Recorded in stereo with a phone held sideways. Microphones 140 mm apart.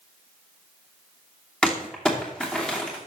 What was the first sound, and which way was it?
Crumpling, 5° left (ahead or behind).